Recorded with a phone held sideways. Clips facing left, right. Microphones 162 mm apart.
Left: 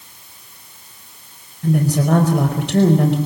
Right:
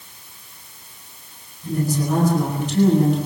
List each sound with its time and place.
1.6 s a woman speaking: 75° left (ahead or behind), 4.5 m